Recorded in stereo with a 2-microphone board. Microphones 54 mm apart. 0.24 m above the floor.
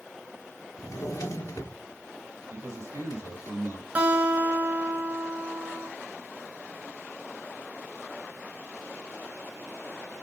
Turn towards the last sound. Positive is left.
turn(degrees=-30)  # may be behind; listen again after turning